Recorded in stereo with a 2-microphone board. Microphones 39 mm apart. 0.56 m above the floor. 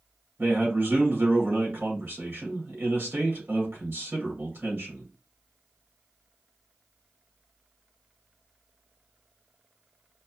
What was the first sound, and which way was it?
A man speaking, 65° right (ahead or behind).